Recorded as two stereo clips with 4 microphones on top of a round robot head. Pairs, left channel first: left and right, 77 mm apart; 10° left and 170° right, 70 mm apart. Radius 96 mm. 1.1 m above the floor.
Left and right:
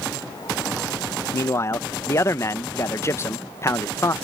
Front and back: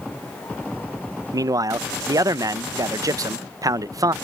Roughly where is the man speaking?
Behind left.